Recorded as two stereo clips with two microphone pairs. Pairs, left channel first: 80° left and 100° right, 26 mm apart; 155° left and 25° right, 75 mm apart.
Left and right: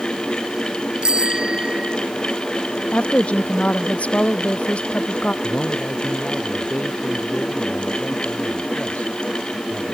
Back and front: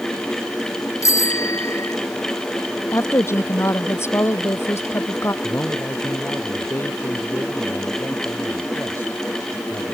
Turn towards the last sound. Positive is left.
turn(degrees=95)